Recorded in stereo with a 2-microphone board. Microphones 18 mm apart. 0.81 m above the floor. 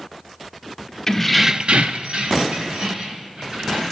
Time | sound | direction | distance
1.1 | keys jangling | 15° left (ahead or behind) | 0.8 m